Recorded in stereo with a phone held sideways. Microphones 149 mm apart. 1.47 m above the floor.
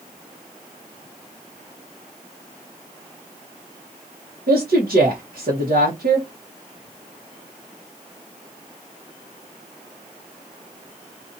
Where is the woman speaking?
75° right (ahead or behind), 1.3 m.